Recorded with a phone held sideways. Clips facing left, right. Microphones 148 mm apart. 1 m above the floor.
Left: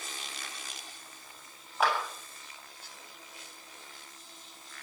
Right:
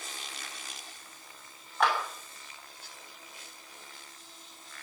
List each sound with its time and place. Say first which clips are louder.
1.8 s a clap: right 1 dB; 5° left (ahead or behind), 6.5 m